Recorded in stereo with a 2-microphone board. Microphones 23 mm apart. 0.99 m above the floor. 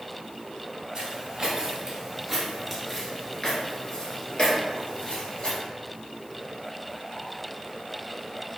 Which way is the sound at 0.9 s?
45° right (ahead or behind).